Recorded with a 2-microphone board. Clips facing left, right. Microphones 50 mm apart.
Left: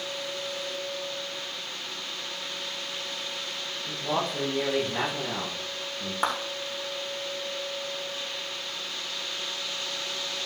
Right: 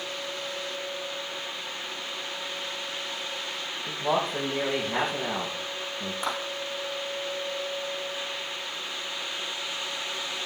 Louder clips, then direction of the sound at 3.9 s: Right 3 dB; 55° right (ahead or behind).